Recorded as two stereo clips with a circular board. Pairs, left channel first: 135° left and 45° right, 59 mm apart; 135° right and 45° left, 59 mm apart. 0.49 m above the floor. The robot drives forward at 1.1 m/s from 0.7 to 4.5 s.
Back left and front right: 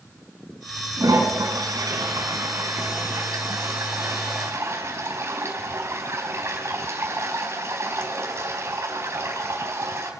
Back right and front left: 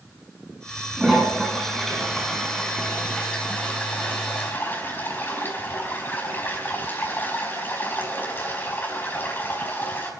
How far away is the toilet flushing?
About 6.5 m.